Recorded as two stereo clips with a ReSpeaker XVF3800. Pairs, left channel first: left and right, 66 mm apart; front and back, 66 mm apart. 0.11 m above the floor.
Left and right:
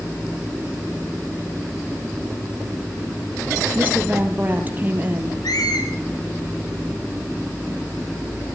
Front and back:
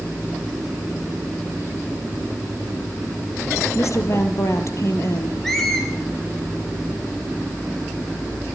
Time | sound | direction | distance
3.8 | a woman speaking | 30° right | 3 m
5.4 | a squeak | 85° left | 5.5 m